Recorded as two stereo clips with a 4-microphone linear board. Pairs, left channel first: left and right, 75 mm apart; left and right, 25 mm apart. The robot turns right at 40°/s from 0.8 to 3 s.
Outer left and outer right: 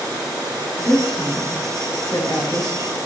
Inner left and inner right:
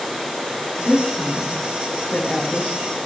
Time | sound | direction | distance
0.8 | a woman speaking | 35° left (ahead or behind) | 2 m